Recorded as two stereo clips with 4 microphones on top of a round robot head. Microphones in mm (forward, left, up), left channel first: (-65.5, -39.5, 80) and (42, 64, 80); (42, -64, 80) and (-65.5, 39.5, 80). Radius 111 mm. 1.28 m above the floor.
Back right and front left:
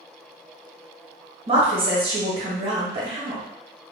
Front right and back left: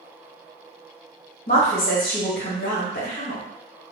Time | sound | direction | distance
1.5 | a woman speaking | 10° right | 1.0 m